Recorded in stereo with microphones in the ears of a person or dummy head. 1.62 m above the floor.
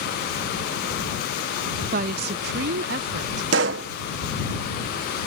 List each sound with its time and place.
1.9 s a woman speaking: 50° right (ahead or behind); by 3.4 s 65° right (ahead or behind)
3.5 s a pop: 75° right (ahead or behind)